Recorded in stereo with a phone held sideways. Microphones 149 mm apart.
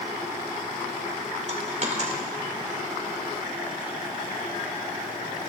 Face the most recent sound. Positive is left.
turn(degrees=-50)  # may be behind; listen again after turning